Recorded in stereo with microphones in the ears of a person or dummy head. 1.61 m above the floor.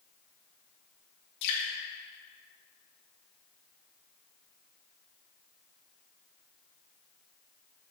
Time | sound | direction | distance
1.4 | dripping | 60° left (ahead or behind) | 2.5 m